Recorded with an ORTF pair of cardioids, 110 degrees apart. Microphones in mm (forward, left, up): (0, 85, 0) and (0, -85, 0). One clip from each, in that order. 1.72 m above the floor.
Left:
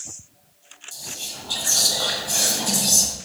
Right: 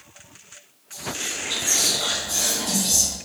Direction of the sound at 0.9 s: 55° left.